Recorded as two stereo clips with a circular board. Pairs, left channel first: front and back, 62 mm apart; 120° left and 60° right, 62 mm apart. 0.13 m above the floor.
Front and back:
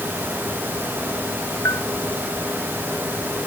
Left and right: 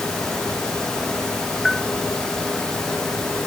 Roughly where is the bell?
Ahead left.